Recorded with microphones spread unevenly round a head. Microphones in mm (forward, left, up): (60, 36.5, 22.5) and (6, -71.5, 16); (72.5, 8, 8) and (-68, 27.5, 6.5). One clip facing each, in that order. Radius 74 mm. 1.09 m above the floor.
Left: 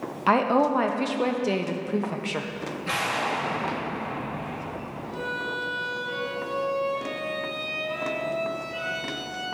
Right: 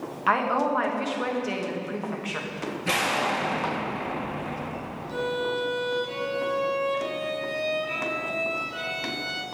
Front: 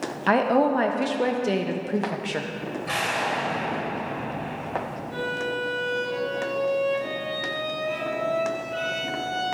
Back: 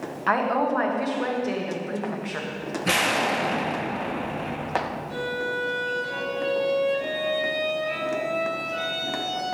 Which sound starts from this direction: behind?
An explosion, at 2.9 s.